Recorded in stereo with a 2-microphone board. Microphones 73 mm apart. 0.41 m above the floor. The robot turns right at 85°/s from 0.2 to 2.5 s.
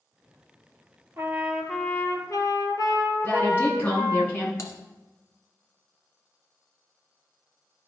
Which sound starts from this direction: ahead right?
A trumpet, at 1.2 s.